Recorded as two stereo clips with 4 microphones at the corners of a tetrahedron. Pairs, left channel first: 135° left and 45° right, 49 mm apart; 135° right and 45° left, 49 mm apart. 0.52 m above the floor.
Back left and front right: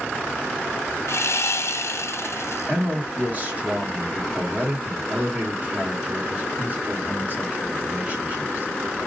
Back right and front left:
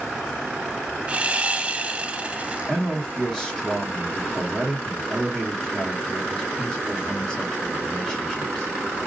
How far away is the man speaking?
About 1.2 m.